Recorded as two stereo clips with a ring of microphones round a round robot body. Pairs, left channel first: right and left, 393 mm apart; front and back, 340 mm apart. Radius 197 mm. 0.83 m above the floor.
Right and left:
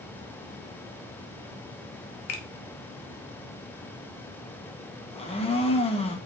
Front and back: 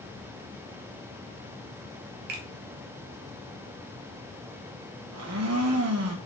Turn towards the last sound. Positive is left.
turn(degrees=-160)